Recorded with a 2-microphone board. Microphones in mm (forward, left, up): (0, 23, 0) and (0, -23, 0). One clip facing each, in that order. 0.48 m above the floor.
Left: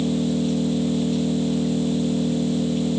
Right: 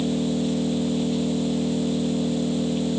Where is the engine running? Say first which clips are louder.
Left 2 dB; 5° right (ahead or behind).